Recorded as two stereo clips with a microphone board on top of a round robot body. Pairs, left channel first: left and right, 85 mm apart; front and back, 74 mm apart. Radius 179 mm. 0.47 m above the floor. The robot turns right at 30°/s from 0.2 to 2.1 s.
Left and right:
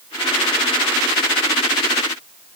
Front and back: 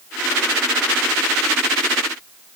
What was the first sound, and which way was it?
Only background noise.